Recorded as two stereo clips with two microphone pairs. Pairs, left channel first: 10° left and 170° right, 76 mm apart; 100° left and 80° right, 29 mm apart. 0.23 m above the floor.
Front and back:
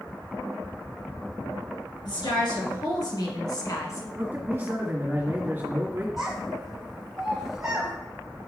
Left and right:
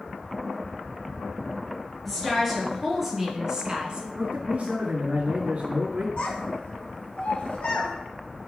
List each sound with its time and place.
2.0 s a woman speaking: 20° left, 3 m; by 4.0 s 30° right, 1.9 m
4.2 s a man speaking: 120° right, 1.7 m
6.2 s a child speaking: 100° left, 1.2 m